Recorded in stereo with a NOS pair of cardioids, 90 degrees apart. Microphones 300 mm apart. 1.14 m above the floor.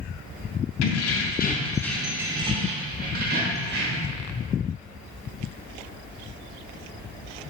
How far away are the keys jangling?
About 0.7 m.